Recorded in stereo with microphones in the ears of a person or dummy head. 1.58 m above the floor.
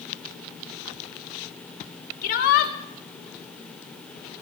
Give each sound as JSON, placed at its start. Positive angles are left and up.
{"t": 2.2, "sound": "a shout", "side_deg": 50, "distance_m": 2.5}